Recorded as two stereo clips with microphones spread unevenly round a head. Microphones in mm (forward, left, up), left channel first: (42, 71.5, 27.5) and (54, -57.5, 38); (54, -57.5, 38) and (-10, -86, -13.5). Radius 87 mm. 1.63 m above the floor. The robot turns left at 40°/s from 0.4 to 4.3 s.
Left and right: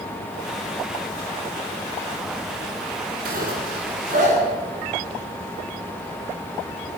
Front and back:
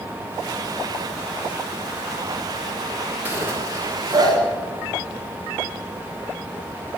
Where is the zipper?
90° right, 7.5 m; by 4.4 s 130° right, 7.5 m.